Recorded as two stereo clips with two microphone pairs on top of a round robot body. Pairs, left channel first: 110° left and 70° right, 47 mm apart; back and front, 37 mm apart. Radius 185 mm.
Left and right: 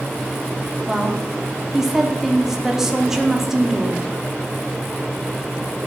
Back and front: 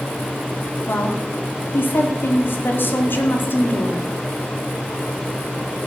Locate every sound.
0.9 s a woman speaking: 150° right, 2.5 m